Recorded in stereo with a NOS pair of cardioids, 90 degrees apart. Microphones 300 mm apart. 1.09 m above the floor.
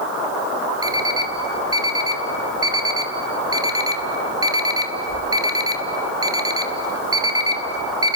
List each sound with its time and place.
0.8 s an alarm clock: 15° right, 1.9 m